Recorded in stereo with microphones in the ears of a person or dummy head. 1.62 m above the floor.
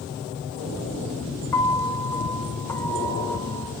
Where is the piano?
15° left (ahead or behind), 1.3 m.